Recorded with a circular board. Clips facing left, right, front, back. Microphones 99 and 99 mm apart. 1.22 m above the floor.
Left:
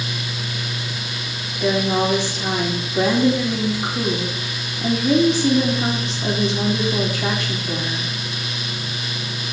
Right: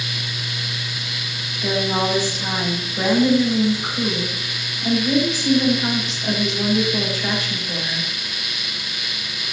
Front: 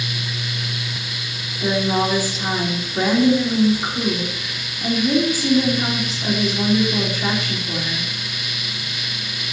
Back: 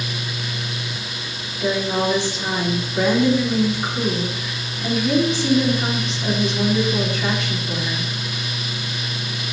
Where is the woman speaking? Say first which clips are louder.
Left 2 dB, front 1 dB; 80° left, 3.5 m.